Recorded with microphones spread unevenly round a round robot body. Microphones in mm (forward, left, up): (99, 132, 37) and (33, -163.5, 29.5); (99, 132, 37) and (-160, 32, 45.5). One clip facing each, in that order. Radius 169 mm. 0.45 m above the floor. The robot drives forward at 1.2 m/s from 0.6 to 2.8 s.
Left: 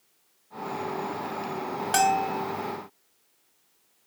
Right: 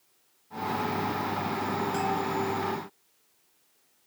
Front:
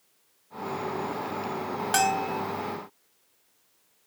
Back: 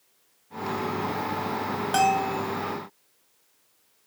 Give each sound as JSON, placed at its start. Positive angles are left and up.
{"t": 1.9, "sound": "a bell", "azimuth_deg": 80}